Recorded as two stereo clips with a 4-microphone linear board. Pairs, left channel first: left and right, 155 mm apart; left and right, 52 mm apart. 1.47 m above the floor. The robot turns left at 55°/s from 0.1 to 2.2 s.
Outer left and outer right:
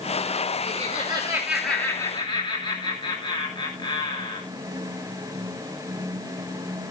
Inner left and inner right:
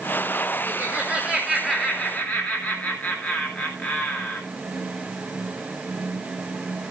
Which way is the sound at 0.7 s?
125° right.